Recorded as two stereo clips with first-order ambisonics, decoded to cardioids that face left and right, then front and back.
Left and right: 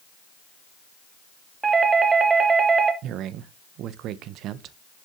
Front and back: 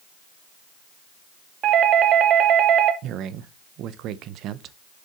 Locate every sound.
1.6 s a doorbell: 155° right, 0.8 m
3.0 s a man speaking: 135° right, 0.6 m